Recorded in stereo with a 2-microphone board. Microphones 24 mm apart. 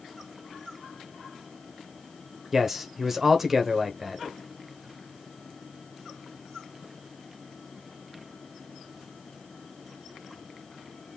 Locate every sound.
2.5 s a man speaking: 15° right (ahead or behind), 1.2 m